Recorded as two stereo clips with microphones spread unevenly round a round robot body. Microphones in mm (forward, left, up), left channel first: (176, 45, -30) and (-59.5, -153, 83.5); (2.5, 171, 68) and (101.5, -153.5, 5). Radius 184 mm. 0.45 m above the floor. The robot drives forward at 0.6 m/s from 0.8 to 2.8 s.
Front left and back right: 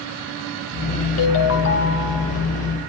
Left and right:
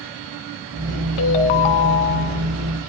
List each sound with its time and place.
1.2 s a ringtone: 90° left, 2.0 m; by 2.4 s 110° left, 2 m